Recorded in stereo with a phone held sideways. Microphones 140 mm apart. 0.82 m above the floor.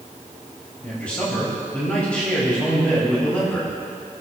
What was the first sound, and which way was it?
A man speaking, 10° left (ahead or behind).